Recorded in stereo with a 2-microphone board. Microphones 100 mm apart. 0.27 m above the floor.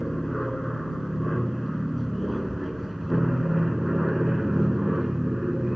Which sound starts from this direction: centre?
An aircraft, at 0.0 s.